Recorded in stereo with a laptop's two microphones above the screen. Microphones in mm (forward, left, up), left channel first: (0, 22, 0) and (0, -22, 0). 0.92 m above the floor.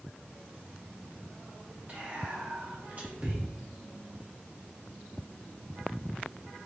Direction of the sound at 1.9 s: 35° right (ahead or behind).